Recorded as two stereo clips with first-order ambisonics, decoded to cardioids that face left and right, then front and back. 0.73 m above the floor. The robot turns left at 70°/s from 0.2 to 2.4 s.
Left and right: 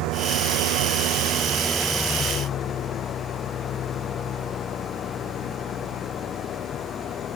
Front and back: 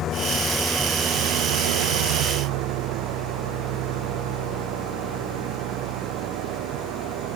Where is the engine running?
60° right; by 7.4 s 150° left.